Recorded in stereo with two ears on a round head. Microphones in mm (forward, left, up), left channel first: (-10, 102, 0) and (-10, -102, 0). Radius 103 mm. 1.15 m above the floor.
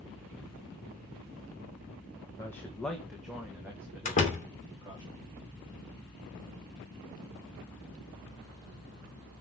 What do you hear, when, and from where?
2.4 s a man speaking: 10° left (ahead or behind), 1.2 m; by 5.0 s 15° right (ahead or behind), 3 m
4.0 s a door slam: 30° left (ahead or behind), 3.5 m